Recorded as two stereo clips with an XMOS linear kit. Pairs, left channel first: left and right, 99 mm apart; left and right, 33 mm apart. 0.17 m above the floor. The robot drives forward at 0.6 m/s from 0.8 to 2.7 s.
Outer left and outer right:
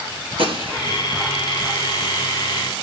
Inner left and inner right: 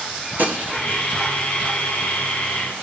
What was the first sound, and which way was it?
A gunshot, 65° right (ahead or behind).